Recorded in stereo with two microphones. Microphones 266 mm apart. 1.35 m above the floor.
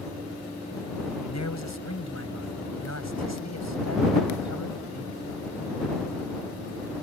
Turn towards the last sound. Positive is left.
turn(degrees=85)